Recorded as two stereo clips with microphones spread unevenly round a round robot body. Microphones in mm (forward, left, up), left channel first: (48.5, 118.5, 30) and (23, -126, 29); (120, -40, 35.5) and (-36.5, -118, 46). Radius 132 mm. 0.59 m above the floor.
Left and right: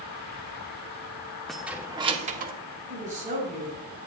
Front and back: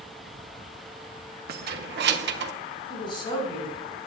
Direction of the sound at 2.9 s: 35° right.